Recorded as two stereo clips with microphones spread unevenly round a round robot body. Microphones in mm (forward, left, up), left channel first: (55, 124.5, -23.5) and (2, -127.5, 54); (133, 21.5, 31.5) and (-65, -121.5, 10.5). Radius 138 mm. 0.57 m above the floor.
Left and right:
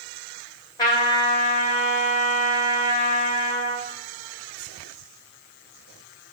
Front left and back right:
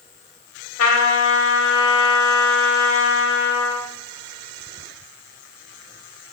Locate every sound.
0.8 s a trumpet: 15° left, 1.9 m